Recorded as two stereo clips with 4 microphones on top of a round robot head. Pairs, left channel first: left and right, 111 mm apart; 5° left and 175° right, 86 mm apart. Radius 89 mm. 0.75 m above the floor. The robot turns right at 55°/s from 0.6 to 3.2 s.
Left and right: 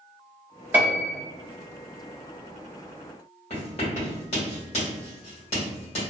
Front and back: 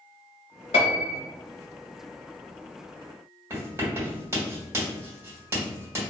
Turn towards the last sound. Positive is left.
turn(degrees=125)